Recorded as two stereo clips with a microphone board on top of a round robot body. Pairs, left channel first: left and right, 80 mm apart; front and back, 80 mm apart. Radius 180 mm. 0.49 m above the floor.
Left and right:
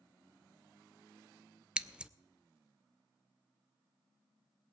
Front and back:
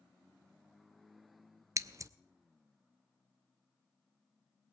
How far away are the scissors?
About 0.9 m.